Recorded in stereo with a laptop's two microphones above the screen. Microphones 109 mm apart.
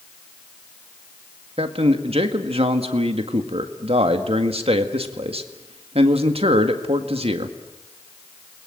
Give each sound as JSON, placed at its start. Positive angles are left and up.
{"t": 1.6, "sound": "a man speaking", "side_deg": -65, "distance_m": 1.8}